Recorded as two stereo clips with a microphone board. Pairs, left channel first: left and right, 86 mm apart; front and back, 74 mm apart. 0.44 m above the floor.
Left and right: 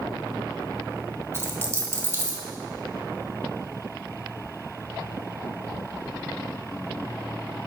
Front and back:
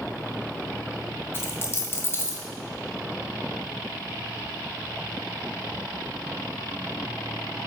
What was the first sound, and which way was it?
A dropped coin, 40° right.